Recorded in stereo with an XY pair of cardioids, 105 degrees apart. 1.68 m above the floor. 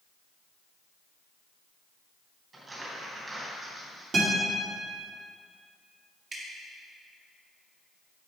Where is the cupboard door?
No cupboard door in this recording.